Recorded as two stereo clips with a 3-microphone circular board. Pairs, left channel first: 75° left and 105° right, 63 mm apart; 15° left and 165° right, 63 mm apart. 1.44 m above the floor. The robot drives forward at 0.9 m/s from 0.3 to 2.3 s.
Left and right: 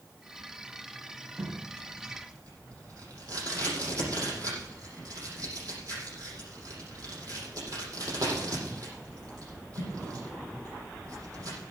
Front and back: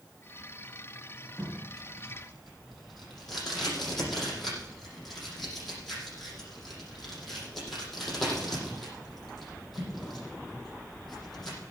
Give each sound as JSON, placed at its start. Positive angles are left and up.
{"t": 1.4, "sound": "tape being pulled", "azimuth_deg": -70, "distance_m": 8.5}